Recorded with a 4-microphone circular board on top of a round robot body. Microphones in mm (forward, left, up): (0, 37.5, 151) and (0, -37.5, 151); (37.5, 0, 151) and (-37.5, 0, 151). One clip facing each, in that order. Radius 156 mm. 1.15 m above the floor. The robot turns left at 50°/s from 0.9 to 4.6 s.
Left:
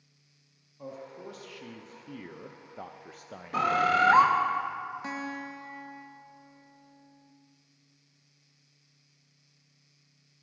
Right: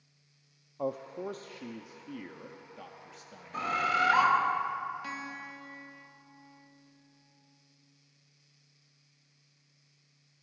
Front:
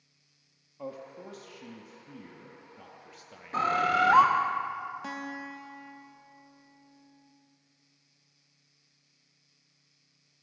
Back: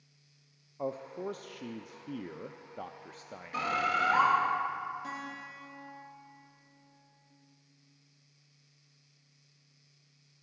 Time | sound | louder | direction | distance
0.8 | a man speaking | right 7 dB, back 5 dB | 115° right | 0.5 m
3.5 | a bird | left 5 dB, front 5 dB | 60° left | 0.8 m
5.0 | a guitar | left 4 dB, front 3 dB | 25° left | 1.0 m